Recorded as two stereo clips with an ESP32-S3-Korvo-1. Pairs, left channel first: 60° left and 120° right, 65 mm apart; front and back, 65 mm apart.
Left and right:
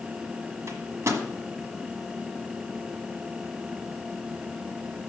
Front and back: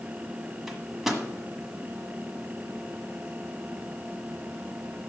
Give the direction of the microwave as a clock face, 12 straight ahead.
3 o'clock.